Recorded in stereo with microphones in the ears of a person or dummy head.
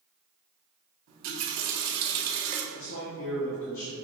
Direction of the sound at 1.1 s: 45° right (ahead or behind).